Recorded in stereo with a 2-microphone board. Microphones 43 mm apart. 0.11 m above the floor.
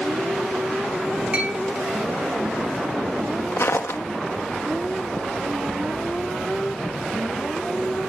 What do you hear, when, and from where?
1.3 s a clink: 25° right (ahead or behind), 4.5 m
3.6 s footsteps: 90° left, 1.1 m